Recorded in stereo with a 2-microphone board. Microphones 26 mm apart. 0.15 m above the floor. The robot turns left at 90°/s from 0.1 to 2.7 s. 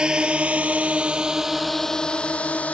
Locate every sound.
0.0 s a drone: 35° right (ahead or behind); by 2.7 s 75° left (ahead or behind)